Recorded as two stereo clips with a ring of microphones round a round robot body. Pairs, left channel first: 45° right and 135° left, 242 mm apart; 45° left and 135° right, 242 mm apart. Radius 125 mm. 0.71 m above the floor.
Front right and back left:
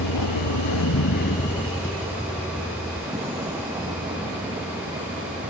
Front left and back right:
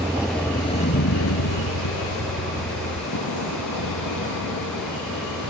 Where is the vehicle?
55° right; by 5.5 s 65° left.